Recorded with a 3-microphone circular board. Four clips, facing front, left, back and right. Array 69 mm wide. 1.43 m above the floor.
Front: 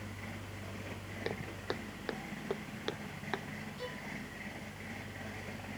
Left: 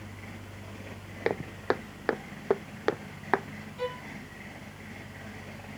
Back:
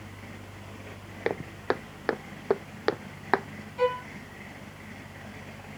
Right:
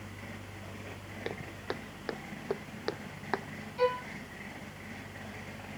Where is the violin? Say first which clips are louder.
Right 6 dB, back 21 dB; 155° right.